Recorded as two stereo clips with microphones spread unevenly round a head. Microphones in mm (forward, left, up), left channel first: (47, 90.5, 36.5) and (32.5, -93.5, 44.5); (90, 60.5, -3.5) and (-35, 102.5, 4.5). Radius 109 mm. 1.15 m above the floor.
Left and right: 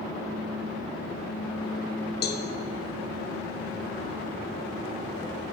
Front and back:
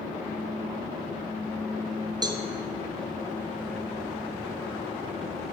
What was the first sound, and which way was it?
A cowbell, 105° left.